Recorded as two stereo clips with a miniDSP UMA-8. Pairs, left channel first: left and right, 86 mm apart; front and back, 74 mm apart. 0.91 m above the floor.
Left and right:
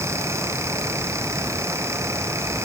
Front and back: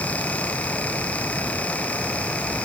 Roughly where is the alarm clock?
No alarm clock in this recording.